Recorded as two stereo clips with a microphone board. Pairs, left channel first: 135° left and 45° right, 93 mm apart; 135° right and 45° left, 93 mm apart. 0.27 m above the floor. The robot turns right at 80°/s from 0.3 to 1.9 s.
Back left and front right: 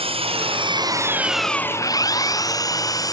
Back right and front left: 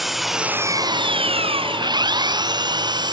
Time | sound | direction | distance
0.0 | an engine running | 45° right | ?